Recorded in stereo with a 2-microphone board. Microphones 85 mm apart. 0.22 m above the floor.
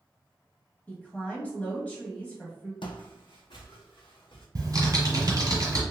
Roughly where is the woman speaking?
Centre.